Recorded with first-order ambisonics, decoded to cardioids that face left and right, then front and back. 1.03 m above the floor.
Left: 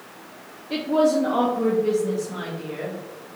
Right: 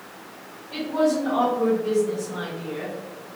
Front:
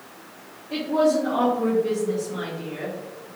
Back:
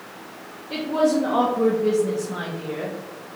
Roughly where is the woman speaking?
Behind left.